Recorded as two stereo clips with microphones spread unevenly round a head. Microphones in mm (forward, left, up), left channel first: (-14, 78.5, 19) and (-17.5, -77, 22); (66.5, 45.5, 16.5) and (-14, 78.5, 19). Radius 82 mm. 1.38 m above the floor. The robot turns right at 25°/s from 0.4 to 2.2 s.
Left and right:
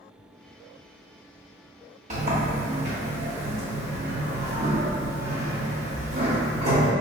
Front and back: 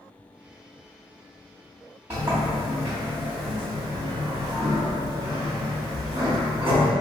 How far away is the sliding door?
About 1.2 m.